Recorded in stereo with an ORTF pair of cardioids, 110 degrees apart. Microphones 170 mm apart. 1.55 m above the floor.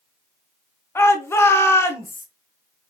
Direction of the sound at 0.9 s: 15° left.